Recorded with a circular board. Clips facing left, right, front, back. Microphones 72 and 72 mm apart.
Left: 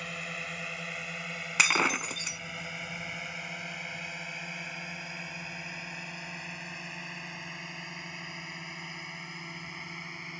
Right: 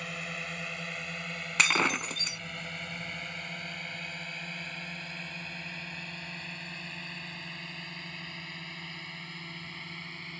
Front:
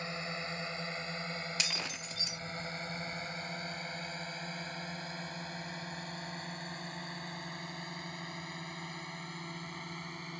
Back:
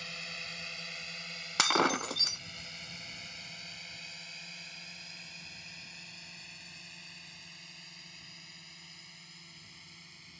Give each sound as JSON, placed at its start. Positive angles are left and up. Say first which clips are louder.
{"t": 0.0, "sound": "a drone", "louder": "even, front 6 dB", "azimuth_deg": 0}
{"t": 1.6, "sound": "breaking glass", "louder": "even, back 12 dB", "azimuth_deg": 175}